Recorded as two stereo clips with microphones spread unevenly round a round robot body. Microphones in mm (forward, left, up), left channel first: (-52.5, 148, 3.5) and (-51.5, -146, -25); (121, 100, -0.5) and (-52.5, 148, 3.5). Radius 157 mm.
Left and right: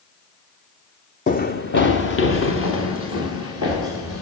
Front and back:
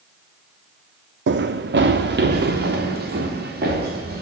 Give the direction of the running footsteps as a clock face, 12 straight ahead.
7 o'clock.